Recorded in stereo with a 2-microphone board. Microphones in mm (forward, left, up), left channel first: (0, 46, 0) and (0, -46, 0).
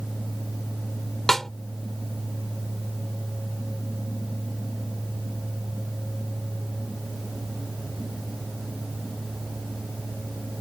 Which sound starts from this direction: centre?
A snare drum, at 1.3 s.